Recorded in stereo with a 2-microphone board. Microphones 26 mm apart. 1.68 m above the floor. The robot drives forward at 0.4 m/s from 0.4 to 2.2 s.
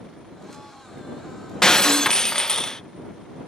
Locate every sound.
1.6 s breaking glass: 25° left (ahead or behind); by 2.8 s 20° left (ahead or behind)